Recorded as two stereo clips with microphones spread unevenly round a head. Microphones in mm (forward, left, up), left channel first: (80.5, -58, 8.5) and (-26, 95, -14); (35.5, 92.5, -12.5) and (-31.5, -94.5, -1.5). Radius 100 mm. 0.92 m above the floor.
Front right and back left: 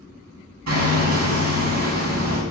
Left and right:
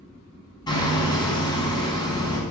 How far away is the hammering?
About 5.5 m.